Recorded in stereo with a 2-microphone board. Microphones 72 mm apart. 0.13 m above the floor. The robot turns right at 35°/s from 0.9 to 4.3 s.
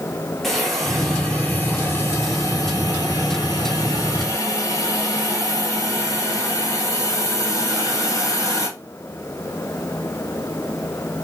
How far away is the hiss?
About 1.1 m.